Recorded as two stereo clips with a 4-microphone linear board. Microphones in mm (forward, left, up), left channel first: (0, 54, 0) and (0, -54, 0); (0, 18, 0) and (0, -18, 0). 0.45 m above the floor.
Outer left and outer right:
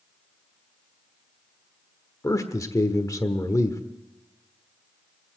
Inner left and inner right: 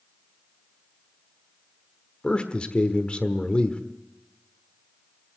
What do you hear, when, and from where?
2.2 s a man speaking: 30° left (ahead or behind), 1.2 m